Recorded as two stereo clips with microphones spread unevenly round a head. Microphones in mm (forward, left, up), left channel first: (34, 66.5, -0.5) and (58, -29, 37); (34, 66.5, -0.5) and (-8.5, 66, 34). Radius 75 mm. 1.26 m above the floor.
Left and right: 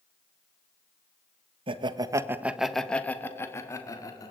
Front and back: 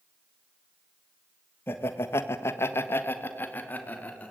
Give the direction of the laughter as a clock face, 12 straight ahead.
2 o'clock.